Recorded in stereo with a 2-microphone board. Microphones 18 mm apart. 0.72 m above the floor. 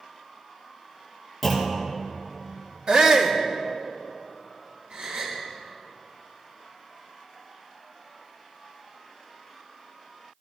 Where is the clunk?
5° left (ahead or behind), 2.5 m.